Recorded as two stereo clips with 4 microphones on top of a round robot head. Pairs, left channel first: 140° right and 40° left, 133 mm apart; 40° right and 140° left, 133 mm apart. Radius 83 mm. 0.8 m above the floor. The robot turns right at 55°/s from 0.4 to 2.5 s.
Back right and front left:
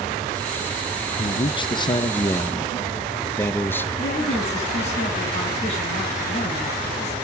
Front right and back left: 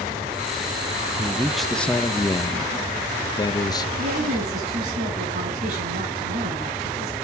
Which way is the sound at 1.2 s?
150° right.